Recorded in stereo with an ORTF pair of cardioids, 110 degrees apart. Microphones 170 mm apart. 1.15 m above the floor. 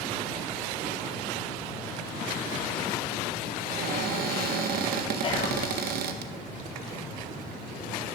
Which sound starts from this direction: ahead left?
Whispering, at 5.2 s.